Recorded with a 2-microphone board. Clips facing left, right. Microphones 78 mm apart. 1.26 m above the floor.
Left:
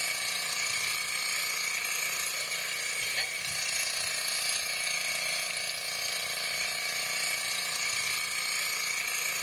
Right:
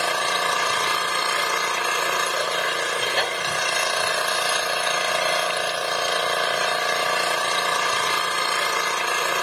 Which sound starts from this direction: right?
An engine running, at 0.0 s.